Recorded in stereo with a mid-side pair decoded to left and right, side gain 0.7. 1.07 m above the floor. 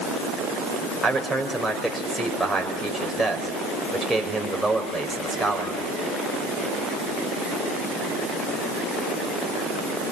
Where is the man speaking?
5° right, 5.5 m.